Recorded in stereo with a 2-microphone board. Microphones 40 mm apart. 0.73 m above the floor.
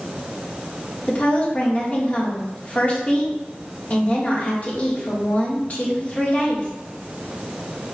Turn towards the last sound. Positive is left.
turn(degrees=35)  # may be behind; listen again after turning